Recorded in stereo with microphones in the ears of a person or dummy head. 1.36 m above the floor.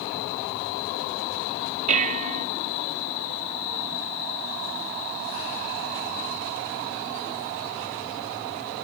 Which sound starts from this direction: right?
Dishes clattering, at 1.9 s.